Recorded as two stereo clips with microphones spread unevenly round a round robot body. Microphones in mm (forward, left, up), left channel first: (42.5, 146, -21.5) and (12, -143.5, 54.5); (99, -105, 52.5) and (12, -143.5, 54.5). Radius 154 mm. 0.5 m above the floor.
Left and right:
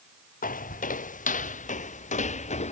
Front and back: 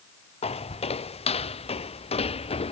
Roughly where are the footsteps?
Ahead.